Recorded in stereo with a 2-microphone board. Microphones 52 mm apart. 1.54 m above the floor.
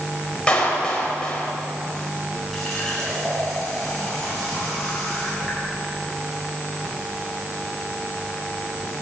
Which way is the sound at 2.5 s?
5° left (ahead or behind).